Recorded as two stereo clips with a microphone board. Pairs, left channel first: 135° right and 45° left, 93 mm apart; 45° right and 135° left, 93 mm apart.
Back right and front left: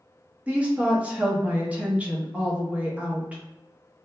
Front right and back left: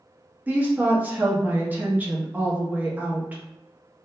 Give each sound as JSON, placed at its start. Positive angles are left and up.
{"t": 0.5, "sound": "a woman speaking", "azimuth_deg": 100, "distance_m": 0.5}